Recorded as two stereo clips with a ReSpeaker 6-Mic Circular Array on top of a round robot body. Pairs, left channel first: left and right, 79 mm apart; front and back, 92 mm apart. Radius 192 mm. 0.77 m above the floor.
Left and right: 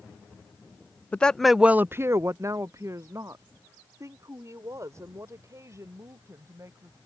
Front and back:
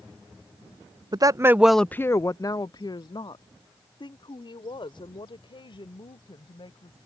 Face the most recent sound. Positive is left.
turn(degrees=-35)